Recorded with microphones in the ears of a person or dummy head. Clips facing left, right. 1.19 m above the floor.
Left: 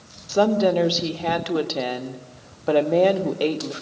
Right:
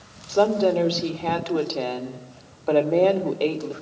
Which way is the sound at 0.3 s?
15° left (ahead or behind).